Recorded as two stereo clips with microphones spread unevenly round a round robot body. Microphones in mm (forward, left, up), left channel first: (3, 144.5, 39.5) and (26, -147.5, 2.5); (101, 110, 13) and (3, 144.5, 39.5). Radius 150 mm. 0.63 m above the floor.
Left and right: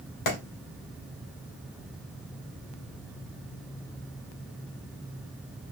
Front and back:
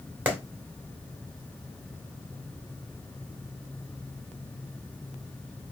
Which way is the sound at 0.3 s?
80° left.